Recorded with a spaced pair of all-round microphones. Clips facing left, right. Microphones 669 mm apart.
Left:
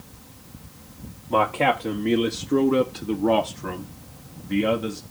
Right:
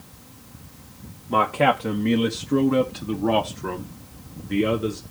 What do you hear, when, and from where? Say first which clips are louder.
1.3 s a man speaking: right 1 dB; 45° right (ahead or behind), 0.9 m; by 5.0 s 20° left (ahead or behind), 1.5 m